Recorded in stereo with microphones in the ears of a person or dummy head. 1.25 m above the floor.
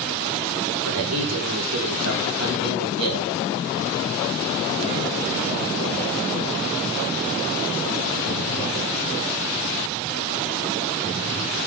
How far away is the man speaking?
About 3.5 m.